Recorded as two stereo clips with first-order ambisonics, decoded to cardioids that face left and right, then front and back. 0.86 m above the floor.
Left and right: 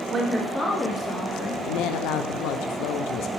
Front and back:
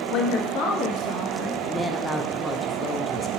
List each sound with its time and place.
0.1 s a woman speaking: 30° right, 1.4 m; by 1.6 s 50° left, 2 m
1.6 s a woman speaking: 80° left, 0.8 m